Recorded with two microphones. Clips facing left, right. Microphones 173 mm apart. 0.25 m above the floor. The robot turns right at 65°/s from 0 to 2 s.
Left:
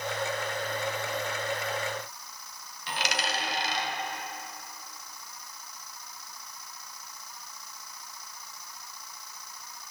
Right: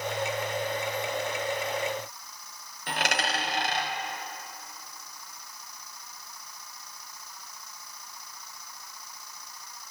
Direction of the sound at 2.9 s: 55° right (ahead or behind).